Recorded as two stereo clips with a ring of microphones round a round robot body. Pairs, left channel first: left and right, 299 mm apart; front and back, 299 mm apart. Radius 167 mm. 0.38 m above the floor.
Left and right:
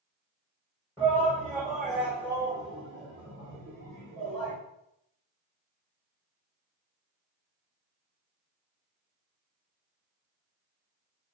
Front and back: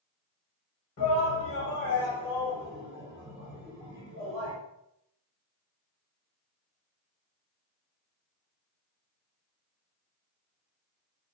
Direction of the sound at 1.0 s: 10° left.